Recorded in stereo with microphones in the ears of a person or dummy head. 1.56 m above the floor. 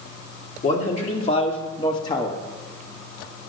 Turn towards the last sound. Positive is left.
turn(degrees=20)  # may be behind; listen again after turning